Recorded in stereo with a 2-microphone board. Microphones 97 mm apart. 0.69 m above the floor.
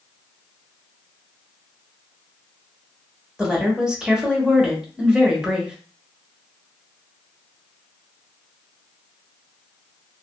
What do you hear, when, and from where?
3.4 s a woman speaking: 10° right (ahead or behind), 1.1 m